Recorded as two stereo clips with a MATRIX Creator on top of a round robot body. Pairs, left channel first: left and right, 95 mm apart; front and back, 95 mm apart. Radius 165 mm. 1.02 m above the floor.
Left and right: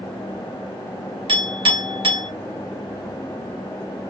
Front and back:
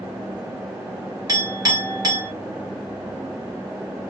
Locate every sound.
1.3 s a clink: 125° right, 1.2 m